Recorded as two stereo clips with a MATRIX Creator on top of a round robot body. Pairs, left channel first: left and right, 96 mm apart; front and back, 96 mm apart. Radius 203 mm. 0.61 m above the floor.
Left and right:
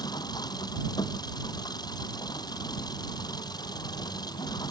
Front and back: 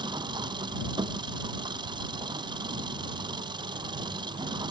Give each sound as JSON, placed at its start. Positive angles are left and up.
{"t": 0.0, "sound": "an engine running", "azimuth_deg": 140}